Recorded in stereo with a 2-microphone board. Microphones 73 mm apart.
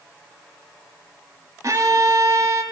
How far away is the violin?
About 0.8 m.